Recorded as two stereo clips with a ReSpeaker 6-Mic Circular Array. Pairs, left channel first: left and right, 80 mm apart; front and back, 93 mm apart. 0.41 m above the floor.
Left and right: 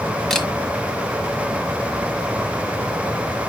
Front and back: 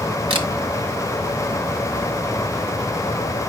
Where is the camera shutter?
175° left, 1.2 m.